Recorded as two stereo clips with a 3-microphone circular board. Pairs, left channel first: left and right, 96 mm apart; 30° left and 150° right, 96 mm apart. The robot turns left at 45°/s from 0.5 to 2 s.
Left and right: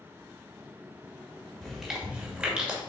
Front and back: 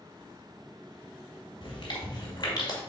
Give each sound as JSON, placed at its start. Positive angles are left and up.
{"t": 1.6, "sound": "chewing", "azimuth_deg": 5, "distance_m": 2.0}